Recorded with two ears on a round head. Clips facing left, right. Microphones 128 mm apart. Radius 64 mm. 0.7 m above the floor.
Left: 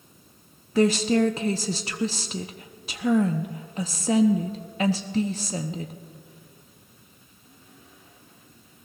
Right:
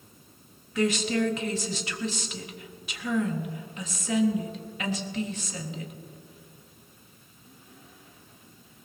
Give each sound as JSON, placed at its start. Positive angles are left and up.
{"t": 0.8, "sound": "a woman speaking", "side_deg": 30, "distance_m": 0.6}